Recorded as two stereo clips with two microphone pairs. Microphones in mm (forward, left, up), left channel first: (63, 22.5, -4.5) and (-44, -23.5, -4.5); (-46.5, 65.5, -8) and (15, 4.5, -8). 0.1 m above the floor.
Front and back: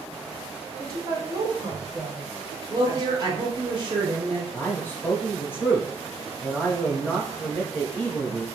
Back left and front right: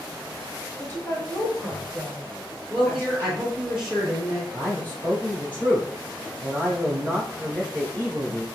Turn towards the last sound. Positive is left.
turn(degrees=85)